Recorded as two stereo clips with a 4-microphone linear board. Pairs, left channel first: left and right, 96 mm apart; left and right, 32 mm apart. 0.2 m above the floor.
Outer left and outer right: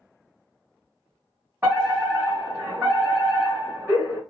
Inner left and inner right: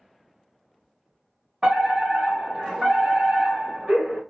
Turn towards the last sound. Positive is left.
turn(degrees=-20)  # may be behind; listen again after turning